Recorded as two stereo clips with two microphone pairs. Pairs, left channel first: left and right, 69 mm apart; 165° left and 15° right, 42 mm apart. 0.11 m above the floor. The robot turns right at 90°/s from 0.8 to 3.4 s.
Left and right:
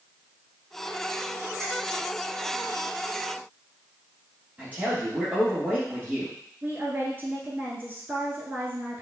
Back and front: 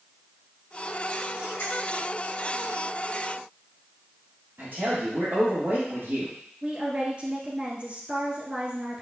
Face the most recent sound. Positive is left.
turn(degrees=-55)